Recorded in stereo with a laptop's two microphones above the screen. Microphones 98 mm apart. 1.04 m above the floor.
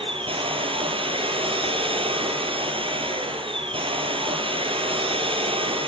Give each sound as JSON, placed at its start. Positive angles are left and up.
{"t": 0.0, "sound": "a machine running", "side_deg": -65, "distance_m": 4.5}